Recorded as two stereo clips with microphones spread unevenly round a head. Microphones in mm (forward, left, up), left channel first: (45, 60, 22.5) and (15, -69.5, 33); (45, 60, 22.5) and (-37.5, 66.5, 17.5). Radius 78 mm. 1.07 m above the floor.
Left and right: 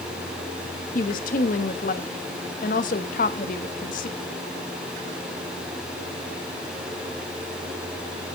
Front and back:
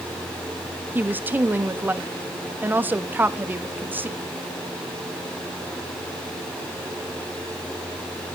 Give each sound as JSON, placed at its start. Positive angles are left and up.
{"t": 0.9, "sound": "a woman speaking", "azimuth_deg": 110, "distance_m": 1.3}